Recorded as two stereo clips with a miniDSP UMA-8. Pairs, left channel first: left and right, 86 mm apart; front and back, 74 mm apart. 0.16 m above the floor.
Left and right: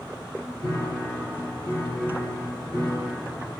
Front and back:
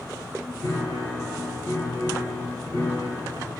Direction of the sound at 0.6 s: 40° left.